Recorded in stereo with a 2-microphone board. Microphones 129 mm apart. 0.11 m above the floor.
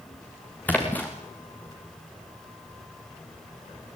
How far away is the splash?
About 4 m.